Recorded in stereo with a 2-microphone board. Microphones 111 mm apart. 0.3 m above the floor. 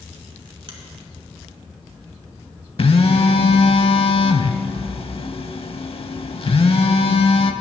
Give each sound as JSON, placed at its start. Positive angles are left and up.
{"t": 0.7, "sound": "a finger snap", "side_deg": -45, "distance_m": 1.6}
{"t": 2.8, "sound": "a phone buzzing", "side_deg": 55, "distance_m": 0.6}